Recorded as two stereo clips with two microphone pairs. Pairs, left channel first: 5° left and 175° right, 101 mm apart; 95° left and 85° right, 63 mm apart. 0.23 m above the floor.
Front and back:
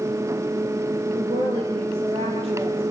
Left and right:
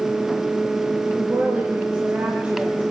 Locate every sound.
1.1 s a woman speaking: 150° right, 4 m; by 2.8 s 155° right, 5.5 m